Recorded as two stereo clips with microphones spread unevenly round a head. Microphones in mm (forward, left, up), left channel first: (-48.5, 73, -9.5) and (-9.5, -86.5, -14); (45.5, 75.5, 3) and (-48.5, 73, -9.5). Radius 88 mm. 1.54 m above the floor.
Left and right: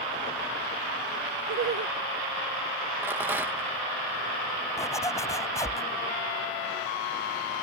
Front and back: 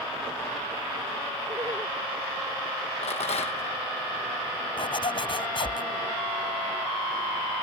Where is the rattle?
5° left.